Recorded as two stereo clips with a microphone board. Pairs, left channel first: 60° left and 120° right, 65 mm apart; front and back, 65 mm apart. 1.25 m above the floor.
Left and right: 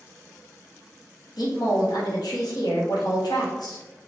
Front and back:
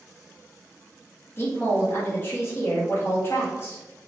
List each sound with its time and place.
1.4 s a woman speaking: 55° left, 1.1 m